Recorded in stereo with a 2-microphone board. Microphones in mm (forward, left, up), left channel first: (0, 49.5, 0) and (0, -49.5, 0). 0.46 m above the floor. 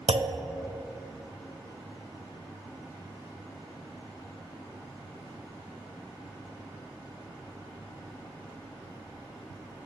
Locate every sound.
0.1 s a clunk: 80° right, 0.5 m